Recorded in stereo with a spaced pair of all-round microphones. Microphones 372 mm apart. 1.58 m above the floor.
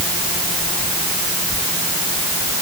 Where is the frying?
No frying in this recording.